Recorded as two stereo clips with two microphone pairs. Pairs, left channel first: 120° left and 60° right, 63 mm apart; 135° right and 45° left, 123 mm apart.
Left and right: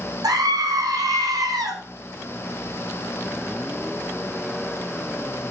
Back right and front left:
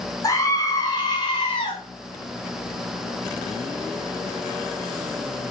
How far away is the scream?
About 4 m.